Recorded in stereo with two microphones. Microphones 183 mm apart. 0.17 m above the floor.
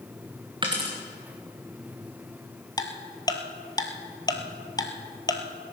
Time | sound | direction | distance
0.6 | a dropped coin | 25° right (ahead or behind) | 3 m
2.8 | ticking | 20° left (ahead or behind) | 1.3 m